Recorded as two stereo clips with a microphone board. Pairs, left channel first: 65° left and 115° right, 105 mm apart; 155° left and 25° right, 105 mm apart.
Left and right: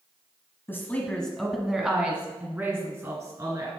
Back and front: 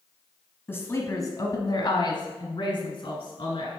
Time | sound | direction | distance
0.7 | a woman speaking | 110° left | 1.1 m